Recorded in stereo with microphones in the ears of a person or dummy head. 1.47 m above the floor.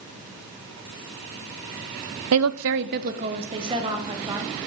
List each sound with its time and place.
2.3 s a woman speaking: 85° right, 0.6 m; by 4.5 s 10° right (ahead or behind), 1.9 m